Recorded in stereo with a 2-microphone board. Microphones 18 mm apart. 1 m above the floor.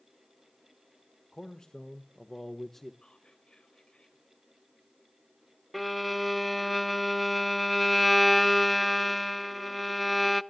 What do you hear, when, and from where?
1.3 s a man speaking: 50° left (ahead or behind), 1.3 m; by 2.9 s 10° left (ahead or behind), 1.1 m
3.0 s whispering: 65° left (ahead or behind), 5.5 m
5.7 s a violin: centre (ahead or behind), 0.6 m